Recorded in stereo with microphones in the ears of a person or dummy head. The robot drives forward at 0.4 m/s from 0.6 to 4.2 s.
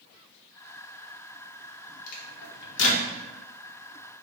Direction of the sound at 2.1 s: 55° left (ahead or behind).